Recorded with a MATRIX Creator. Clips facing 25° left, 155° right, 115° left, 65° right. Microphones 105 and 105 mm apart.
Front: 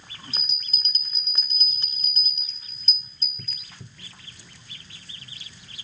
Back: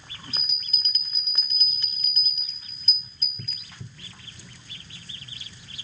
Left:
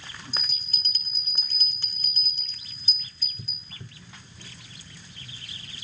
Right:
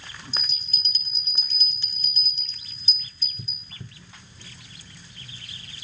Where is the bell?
80° left, 1.4 m.